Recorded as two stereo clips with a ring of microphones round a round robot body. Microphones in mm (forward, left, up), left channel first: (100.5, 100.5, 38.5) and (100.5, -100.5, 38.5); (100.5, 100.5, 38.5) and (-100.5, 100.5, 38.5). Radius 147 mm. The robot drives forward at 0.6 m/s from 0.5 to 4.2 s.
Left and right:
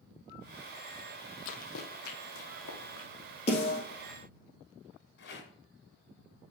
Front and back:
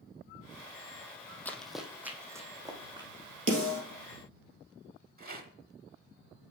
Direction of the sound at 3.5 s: 160° left.